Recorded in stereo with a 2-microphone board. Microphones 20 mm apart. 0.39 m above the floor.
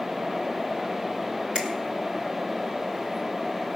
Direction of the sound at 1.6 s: 45° right (ahead or behind).